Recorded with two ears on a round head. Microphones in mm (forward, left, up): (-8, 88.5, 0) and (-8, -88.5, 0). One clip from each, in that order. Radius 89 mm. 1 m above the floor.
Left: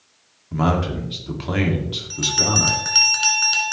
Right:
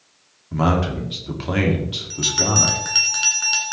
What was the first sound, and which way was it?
A man speaking, 5° right (ahead or behind).